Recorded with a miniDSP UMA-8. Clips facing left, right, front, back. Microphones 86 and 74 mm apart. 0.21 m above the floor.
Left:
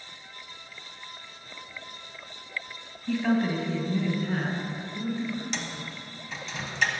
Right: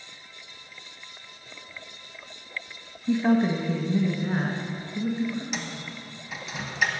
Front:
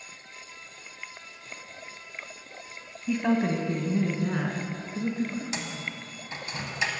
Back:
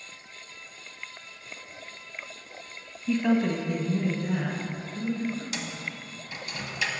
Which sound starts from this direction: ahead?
A microwave, at 5.5 s.